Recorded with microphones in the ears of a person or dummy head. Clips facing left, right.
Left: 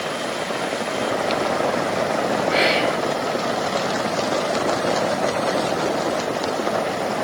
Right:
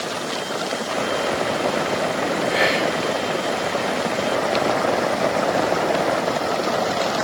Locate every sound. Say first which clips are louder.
2.5 s whispering: left 1 dB; 45° left (ahead or behind), 1.9 m